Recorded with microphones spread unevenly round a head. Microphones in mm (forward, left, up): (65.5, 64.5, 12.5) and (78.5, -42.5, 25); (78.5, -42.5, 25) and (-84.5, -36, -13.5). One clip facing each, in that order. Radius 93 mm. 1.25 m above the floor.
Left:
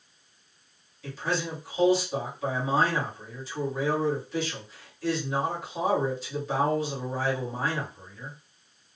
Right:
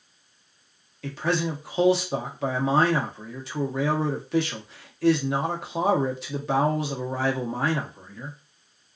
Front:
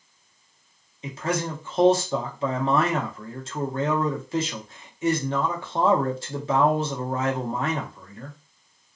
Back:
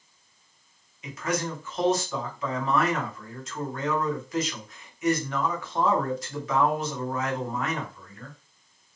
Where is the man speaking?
60° right, 0.8 m.